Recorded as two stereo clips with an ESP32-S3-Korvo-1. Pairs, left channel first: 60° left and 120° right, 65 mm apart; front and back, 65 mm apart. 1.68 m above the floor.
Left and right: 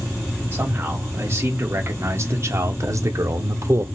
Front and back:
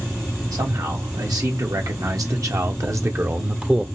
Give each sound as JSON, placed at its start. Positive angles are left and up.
{"t": 0.5, "sound": "a man speaking", "azimuth_deg": -175, "distance_m": 2.0}